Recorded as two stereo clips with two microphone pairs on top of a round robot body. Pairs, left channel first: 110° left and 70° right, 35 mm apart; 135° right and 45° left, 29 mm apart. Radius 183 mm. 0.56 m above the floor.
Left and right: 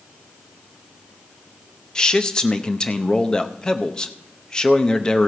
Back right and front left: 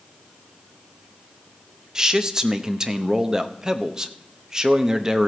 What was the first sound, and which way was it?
A man speaking, 60° left.